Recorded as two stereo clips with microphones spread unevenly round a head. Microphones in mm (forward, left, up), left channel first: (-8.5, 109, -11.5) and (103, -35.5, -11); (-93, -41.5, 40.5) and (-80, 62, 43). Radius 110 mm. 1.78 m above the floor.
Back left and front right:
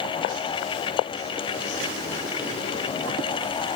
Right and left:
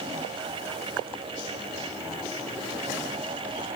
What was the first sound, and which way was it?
Only background noise.